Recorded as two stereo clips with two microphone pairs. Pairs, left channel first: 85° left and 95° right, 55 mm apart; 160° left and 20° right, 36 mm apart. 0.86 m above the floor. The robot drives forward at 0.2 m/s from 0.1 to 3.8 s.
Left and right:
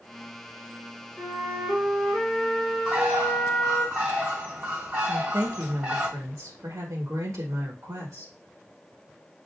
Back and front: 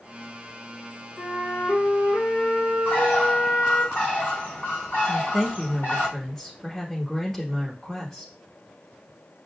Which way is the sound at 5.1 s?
120° right.